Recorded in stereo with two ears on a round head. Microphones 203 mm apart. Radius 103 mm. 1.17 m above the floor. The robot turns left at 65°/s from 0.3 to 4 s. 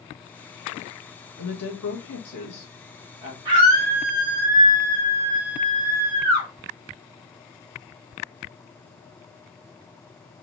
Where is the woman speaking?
75° left (ahead or behind), 1.3 m; by 3.4 s 25° right (ahead or behind), 1.3 m.